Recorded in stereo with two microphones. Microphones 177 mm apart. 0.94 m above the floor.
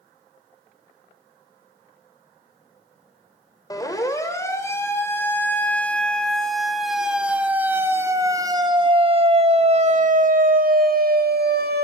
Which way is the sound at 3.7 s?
20° left (ahead or behind).